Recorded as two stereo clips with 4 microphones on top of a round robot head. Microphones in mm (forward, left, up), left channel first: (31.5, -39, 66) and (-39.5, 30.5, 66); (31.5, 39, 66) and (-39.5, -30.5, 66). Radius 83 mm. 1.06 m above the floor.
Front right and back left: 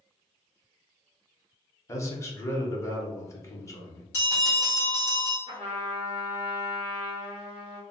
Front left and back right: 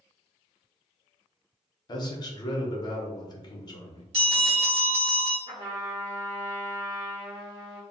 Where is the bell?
110° right, 1.1 m.